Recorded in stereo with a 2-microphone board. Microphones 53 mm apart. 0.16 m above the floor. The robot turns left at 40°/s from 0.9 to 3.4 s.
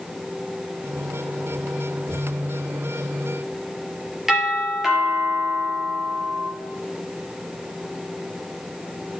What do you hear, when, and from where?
4.3 s a doorbell: 10° right (ahead or behind), 5 m